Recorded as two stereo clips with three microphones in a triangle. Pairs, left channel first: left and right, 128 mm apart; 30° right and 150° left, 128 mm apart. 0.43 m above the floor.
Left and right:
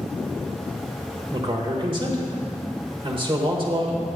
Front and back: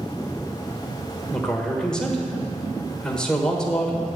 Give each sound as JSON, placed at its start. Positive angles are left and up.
{"t": 1.3, "sound": "a man speaking", "azimuth_deg": -110, "distance_m": 1.4}